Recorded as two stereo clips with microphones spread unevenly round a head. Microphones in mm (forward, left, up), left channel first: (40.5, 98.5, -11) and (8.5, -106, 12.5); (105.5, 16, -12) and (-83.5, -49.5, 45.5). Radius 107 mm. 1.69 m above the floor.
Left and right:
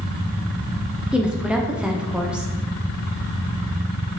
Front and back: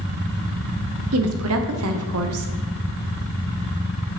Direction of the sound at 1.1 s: 175° left.